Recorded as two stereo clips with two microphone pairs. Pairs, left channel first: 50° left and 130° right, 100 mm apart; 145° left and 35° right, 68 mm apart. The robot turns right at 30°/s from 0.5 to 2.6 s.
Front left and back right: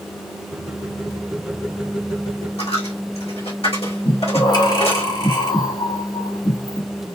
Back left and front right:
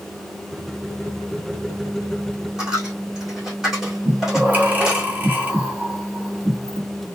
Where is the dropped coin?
45° left, 2 m.